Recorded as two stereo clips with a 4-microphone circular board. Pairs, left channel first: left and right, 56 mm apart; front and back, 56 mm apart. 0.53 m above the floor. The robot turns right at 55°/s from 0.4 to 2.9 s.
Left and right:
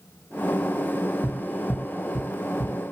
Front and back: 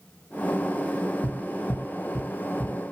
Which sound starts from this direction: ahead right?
Tapping, at 1.2 s.